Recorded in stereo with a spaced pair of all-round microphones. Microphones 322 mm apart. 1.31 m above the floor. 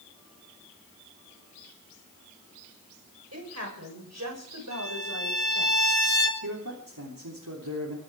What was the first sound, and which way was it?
A woman speaking, 50° right (ahead or behind).